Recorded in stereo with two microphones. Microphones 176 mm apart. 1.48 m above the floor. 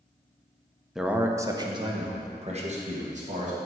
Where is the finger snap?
No finger snap in this recording.